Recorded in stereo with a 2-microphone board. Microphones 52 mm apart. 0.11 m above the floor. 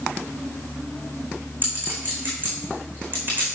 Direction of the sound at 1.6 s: 35° right (ahead or behind).